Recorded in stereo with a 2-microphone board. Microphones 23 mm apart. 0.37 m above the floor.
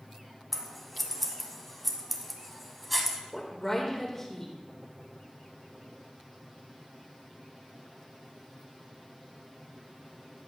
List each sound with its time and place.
0.5 s scissors: centre (ahead or behind), 1.0 m
3.3 s a woman speaking: 20° left (ahead or behind), 1.2 m